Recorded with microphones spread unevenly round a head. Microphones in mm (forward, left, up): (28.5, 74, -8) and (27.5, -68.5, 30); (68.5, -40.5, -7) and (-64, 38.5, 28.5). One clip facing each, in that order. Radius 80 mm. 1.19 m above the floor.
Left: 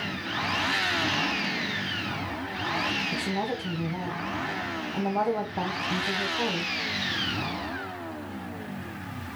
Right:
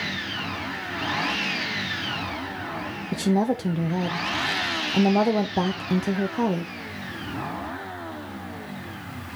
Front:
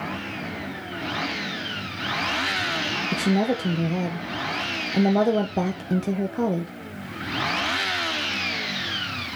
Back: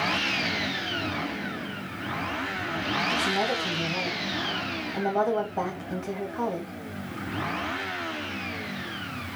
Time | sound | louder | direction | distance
3.1 | a woman speaking | right 11 dB, front 8 dB | 50° right | 0.9 m